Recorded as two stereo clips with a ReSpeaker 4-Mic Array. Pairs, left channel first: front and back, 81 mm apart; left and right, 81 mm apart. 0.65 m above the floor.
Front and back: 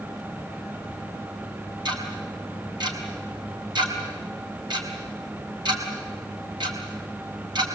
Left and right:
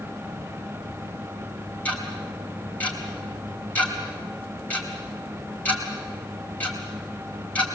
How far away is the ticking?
About 4 m.